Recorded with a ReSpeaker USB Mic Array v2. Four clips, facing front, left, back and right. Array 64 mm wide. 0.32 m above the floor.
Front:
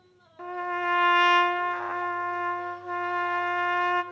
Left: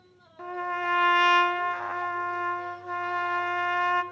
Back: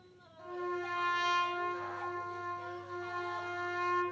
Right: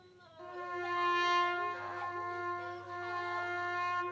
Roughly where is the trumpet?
Ahead left.